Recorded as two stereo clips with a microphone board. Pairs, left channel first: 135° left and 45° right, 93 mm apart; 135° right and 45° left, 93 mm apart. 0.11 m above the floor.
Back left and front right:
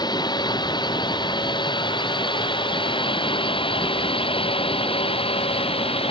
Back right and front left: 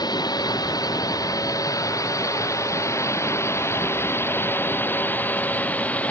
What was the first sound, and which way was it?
A drone, straight behind.